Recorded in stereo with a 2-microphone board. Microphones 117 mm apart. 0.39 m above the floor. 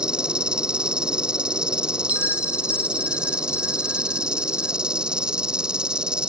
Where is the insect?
5° right (ahead or behind).